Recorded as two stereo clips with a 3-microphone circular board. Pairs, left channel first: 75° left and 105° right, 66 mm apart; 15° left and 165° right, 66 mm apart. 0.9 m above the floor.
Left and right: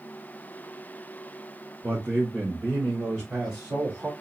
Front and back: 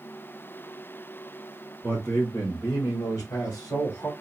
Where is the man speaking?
40° right, 3 m; by 4.1 s 15° right, 2.5 m.